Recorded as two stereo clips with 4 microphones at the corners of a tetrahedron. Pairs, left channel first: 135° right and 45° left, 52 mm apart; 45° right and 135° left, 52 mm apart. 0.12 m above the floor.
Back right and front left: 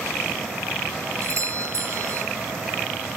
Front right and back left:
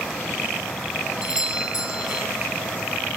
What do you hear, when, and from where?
1.2 s a doorbell: 65° left, 5 m